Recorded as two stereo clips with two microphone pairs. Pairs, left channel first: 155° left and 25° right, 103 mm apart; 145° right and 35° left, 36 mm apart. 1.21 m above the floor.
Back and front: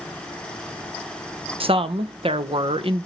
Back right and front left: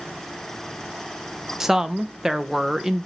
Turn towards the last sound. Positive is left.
turn(degrees=-40)